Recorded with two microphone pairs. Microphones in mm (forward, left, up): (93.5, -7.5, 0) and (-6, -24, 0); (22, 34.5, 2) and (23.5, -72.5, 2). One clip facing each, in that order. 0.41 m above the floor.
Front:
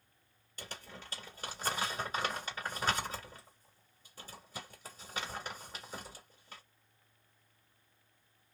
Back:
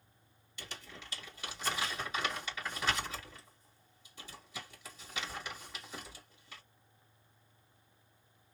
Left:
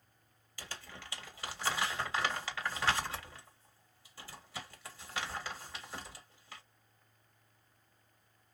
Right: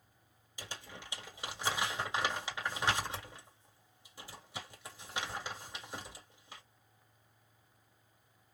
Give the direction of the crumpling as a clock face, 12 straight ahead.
1 o'clock.